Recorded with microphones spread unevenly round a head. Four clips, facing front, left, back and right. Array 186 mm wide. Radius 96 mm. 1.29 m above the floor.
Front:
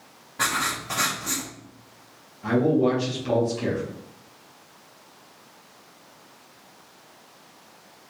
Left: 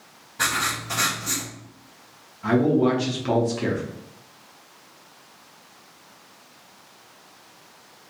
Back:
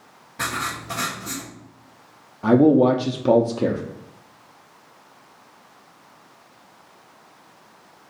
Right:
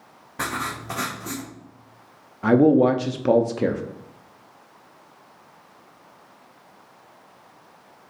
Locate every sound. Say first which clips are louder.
0.4 s writing: left 2 dB, front 1 dB; 75° right, 1.0 m
2.4 s a man speaking: right 4 dB, back 6 dB; 145° right, 0.5 m